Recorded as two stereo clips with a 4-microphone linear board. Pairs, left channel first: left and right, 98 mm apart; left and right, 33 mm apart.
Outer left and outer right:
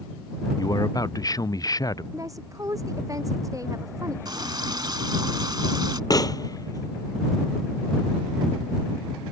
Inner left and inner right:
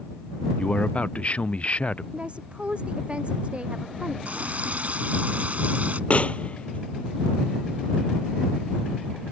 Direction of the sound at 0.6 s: 40° left (ahead or behind).